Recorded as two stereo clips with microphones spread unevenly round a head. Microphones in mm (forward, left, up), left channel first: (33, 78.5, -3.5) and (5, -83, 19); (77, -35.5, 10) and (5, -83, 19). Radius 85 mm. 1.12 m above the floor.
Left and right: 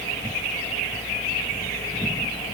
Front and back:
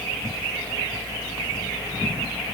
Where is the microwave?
I don't hear a microwave.